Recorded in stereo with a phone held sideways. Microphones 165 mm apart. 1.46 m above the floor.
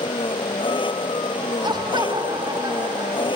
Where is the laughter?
30° right (ahead or behind).